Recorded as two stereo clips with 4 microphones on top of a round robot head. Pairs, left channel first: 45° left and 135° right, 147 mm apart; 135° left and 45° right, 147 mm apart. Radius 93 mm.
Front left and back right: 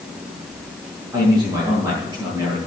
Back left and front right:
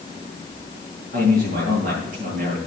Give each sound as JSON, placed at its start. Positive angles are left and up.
{"t": 1.1, "sound": "a man speaking", "azimuth_deg": -60, "distance_m": 8.0}